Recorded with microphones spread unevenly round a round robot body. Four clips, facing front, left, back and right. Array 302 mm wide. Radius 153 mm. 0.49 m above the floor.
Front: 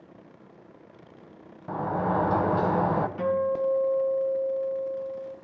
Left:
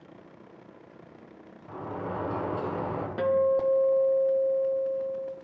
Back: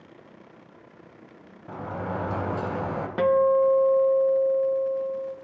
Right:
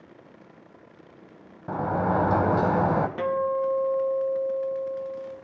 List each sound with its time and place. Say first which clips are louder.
1.7 s a sliding door: right 10 dB, front 5 dB; 85° right, 0.9 m
3.2 s a guitar: left 1 dB, back 11 dB; 175° left, 1.0 m